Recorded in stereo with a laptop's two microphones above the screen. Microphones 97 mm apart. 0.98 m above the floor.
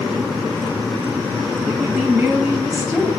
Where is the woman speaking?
10° right (ahead or behind), 2.5 m.